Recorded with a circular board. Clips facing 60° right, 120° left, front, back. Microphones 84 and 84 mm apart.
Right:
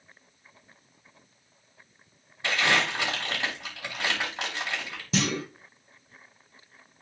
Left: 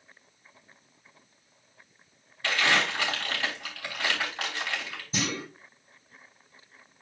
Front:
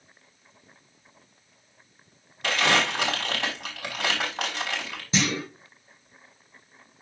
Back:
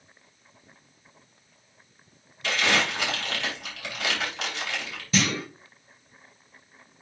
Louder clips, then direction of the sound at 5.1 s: Right 4 dB, back 1 dB; 70° right.